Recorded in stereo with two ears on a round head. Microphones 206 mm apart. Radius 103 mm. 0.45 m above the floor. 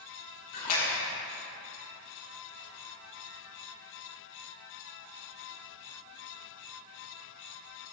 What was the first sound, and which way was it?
A splash, 70° left (ahead or behind).